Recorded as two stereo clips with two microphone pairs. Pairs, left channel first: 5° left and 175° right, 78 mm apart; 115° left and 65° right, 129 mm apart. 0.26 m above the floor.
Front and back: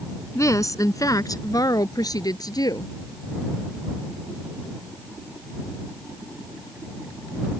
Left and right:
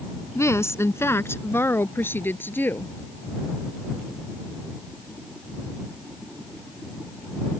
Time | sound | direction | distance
0.3 | a woman speaking | 50° left | ?